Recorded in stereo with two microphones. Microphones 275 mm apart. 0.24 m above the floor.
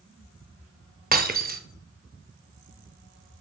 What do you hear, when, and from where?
1.1 s breaking glass: 30° right (ahead or behind), 0.7 m